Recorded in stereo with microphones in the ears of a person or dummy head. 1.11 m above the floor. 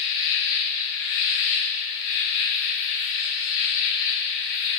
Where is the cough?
No cough in this recording.